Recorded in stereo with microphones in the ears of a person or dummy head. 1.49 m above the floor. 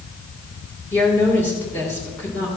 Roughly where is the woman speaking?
Centre.